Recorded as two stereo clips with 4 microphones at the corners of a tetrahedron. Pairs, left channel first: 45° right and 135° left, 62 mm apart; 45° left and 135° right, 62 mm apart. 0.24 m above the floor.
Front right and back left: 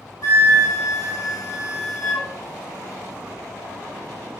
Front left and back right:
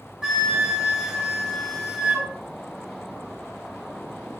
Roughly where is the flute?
Ahead right.